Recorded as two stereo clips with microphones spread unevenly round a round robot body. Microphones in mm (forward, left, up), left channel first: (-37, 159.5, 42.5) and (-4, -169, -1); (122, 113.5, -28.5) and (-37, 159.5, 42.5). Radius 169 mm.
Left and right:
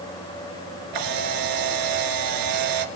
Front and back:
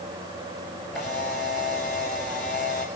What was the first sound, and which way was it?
A camera shutter, 110° right.